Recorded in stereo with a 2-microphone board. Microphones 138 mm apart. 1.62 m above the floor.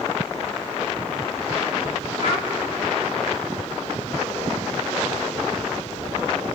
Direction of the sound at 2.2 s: 60° left (ahead or behind).